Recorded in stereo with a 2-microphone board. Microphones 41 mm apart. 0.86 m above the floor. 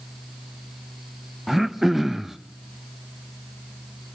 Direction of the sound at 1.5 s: 5° right (ahead or behind).